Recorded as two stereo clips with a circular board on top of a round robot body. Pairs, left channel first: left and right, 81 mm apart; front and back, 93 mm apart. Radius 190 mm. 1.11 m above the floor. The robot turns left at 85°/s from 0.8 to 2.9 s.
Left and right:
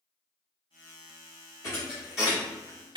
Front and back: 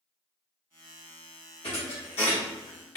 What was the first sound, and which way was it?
A thud, 40° left.